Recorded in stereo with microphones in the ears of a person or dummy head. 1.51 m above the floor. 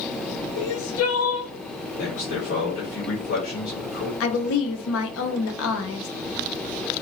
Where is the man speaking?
75° left (ahead or behind), 2 m.